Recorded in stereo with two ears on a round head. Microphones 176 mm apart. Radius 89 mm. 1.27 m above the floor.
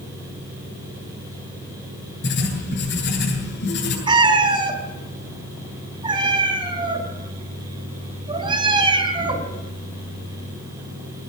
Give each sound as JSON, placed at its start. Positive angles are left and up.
{"t": 2.2, "sound": "writing", "side_deg": 60, "distance_m": 9.0}
{"t": 4.1, "sound": "a cat meowing", "side_deg": -25, "distance_m": 3.5}